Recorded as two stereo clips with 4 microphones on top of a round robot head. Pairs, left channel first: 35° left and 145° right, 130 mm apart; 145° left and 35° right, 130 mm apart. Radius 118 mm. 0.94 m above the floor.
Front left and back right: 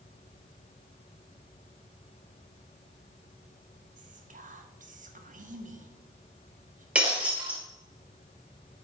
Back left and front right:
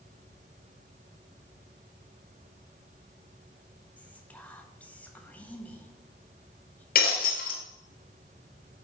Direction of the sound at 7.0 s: 135° left.